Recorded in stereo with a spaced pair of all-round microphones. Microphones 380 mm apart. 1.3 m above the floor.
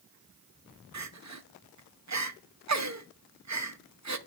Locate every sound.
0.9 s crying: 45° right (ahead or behind), 0.5 m